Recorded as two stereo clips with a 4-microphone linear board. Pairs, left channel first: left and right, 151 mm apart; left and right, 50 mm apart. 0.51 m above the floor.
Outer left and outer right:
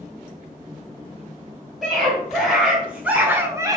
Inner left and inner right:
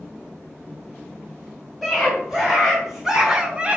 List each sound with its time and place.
1.8 s a scream: centre (ahead or behind), 2.5 m; by 3.8 s 25° right (ahead or behind), 0.9 m